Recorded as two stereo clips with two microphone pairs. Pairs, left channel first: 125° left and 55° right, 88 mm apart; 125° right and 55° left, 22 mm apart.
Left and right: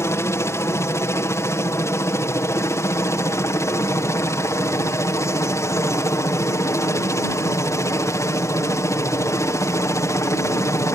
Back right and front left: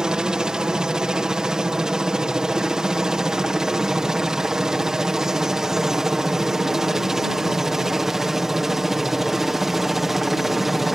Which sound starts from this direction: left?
A helicopter, at 0.0 s.